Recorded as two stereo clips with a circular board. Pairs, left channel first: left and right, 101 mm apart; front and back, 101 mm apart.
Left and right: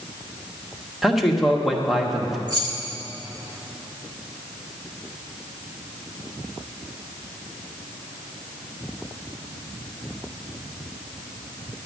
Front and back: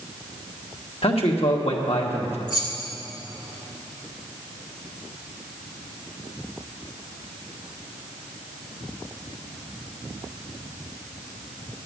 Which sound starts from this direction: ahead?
A man speaking, at 1.0 s.